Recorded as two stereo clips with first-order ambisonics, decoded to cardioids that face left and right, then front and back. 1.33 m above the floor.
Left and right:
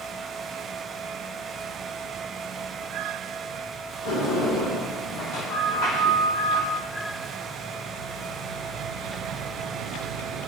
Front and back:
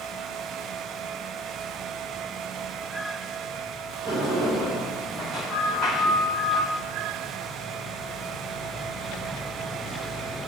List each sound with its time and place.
4.0 s a sliding door: 95° left, 1.9 m